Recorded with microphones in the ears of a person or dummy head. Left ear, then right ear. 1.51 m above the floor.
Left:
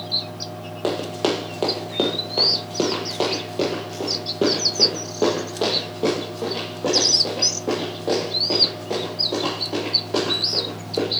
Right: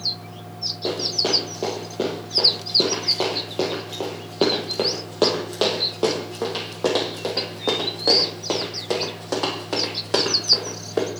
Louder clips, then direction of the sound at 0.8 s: Left 1 dB; 35° left (ahead or behind).